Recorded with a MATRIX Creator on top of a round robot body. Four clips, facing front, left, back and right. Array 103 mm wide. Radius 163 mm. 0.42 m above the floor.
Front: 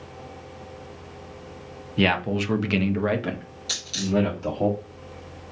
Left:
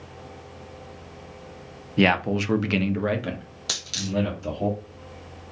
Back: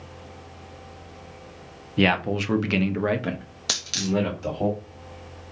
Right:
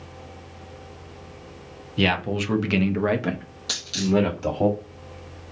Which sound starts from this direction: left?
A man speaking, at 2.0 s.